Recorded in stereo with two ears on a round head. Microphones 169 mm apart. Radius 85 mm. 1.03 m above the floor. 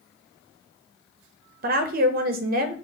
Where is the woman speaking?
50° right (ahead or behind), 0.6 m.